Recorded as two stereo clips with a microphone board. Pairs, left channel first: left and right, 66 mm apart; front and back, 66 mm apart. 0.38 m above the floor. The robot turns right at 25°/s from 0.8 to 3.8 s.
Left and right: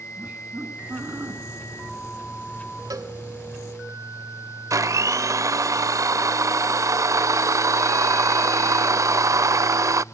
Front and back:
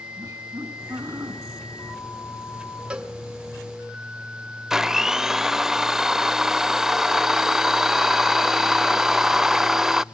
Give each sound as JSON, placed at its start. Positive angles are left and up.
{"t": 0.2, "sound": "laughter", "azimuth_deg": -150, "distance_m": 4.5}
{"t": 2.9, "sound": "a cowbell", "azimuth_deg": -100, "distance_m": 2.0}
{"t": 4.7, "sound": "a blender", "azimuth_deg": -95, "distance_m": 0.5}